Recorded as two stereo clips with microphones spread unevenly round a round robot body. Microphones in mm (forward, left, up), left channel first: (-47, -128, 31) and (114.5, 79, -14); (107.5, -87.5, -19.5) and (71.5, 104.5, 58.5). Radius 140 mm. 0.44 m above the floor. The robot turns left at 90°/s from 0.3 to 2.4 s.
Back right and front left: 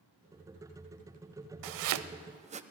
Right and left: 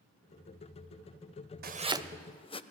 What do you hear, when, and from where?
1.6 s chopping: 55° left, 0.6 m; by 2.6 s 15° right, 0.6 m